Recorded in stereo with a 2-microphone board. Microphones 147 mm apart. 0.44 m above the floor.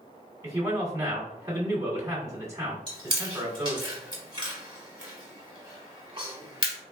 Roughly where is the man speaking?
Centre.